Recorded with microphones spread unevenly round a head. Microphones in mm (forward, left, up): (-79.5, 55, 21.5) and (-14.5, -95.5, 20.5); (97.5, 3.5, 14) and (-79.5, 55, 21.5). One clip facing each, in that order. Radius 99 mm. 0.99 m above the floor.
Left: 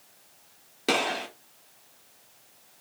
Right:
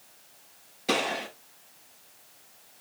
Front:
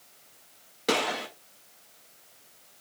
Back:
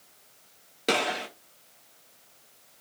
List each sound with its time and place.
0.9 s a gunshot: 105° left, 2 m